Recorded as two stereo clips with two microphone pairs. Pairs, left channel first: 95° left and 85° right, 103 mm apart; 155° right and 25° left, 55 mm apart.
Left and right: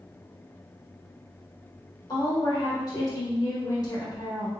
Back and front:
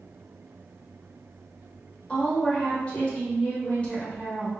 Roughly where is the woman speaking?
Behind left.